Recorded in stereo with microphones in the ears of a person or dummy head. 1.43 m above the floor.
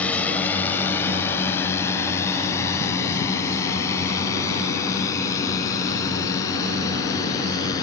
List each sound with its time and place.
0.0 s a drone: 10° left (ahead or behind); by 7.8 s 20° left (ahead or behind)